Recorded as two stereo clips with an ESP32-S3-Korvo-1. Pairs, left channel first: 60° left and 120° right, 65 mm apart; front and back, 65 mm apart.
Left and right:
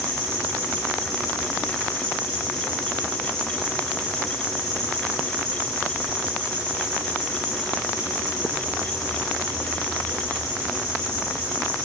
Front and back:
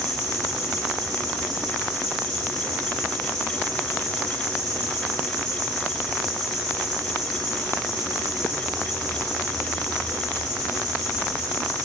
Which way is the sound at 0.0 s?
85° left.